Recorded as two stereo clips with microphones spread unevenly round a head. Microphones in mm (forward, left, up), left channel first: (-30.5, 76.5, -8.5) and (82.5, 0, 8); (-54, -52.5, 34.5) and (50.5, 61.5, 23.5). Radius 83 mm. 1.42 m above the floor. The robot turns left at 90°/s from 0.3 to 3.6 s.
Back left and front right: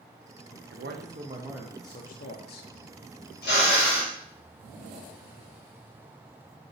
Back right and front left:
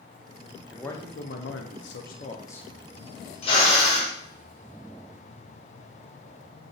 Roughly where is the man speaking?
Ahead right.